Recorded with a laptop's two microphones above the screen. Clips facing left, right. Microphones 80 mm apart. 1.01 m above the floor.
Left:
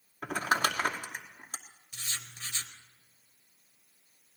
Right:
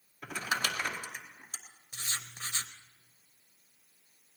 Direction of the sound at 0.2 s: 50° left (ahead or behind).